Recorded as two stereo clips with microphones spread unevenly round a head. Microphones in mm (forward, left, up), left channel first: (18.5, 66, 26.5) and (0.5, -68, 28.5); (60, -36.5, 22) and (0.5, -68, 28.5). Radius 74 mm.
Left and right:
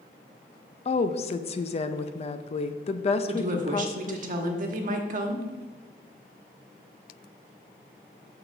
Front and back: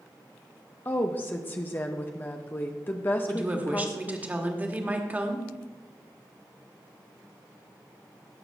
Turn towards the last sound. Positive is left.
turn(degrees=-85)